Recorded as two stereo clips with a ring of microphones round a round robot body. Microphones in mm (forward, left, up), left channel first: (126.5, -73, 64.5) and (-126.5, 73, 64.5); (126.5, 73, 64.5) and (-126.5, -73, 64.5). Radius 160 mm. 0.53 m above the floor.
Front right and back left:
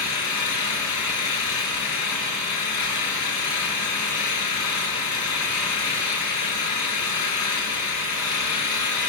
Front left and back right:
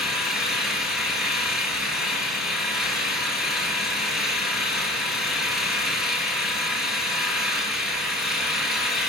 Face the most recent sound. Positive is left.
turn(degrees=-60)